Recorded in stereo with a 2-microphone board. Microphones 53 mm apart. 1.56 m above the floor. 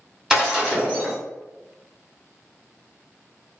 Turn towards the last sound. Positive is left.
turn(degrees=-10)  # may be behind; listen again after turning